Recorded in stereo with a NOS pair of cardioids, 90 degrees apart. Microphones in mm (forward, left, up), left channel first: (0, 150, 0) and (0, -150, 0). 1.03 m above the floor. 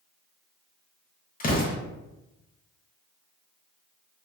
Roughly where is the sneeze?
No sneeze in this recording.